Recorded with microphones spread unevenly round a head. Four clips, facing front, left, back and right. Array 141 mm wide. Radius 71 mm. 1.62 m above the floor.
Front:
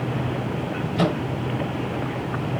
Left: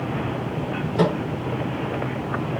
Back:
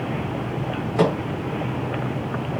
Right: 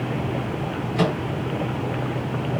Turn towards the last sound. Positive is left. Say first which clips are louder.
# left 2 dB, back 3 dB
turn(degrees=170)